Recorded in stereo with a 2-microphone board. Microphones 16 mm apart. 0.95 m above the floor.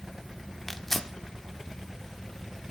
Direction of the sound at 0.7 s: 25° left (ahead or behind).